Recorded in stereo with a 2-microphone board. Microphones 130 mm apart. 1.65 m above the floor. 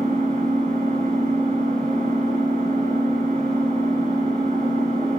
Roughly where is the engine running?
Right.